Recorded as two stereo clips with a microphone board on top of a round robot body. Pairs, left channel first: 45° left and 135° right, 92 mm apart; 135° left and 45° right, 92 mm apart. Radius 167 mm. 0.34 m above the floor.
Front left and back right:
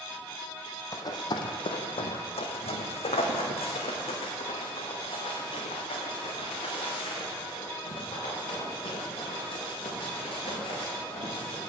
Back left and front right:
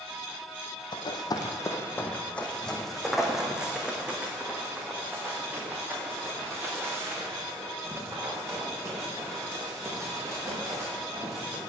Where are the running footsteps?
100° left, 1.3 m; by 11.6 s 15° left, 7.5 m.